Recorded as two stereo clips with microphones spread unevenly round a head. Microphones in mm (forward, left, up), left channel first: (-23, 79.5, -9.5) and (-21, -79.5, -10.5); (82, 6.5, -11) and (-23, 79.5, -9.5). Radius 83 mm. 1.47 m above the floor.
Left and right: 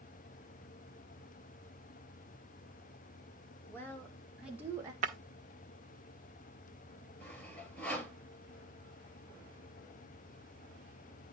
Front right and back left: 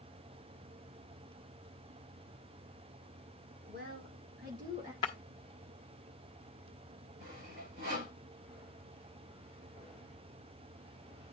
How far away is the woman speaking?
About 2.5 m.